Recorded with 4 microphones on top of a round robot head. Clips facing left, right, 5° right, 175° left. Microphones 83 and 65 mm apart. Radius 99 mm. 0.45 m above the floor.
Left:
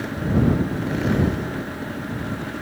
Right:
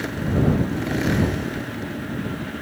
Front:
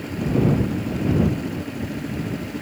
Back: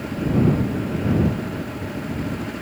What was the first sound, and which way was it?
Only background noise.